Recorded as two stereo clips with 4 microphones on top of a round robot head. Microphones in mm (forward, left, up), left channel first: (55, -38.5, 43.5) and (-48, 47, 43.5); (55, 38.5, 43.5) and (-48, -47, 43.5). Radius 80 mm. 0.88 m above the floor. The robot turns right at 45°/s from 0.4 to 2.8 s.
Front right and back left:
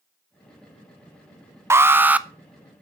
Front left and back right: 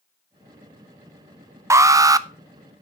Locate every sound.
1.7 s an alarm: straight behind, 0.8 m; by 2.3 s 155° right, 0.8 m